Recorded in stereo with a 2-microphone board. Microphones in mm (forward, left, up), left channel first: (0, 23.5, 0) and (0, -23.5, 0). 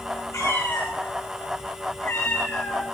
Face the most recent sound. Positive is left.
turn(degrees=80)